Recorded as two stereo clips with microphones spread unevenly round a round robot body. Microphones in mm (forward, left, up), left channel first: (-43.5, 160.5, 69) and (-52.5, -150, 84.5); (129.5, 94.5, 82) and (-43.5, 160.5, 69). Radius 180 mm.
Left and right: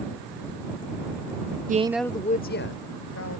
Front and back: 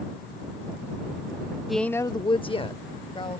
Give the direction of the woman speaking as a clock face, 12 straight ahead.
4 o'clock.